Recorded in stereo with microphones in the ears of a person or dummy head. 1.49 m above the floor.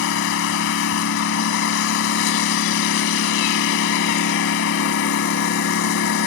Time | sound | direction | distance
0.0 | a lawn mower | 65° left (ahead or behind) | ?